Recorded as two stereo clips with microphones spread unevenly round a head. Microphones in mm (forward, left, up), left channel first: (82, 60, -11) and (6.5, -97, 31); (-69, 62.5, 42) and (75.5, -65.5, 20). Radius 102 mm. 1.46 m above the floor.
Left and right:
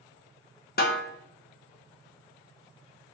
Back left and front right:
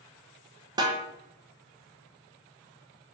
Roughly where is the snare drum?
Ahead left.